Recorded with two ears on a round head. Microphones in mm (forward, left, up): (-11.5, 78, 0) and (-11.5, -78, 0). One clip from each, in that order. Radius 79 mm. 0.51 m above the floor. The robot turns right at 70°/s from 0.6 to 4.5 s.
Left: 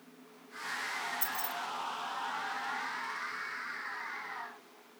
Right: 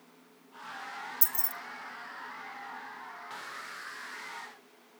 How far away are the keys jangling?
About 0.9 m.